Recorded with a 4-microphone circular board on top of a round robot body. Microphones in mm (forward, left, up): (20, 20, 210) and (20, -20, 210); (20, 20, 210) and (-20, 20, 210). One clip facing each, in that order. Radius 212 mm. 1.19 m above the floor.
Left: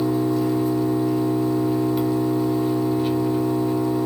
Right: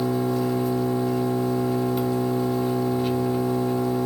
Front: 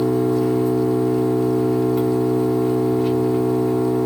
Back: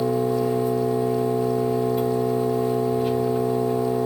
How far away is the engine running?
About 1.4 m.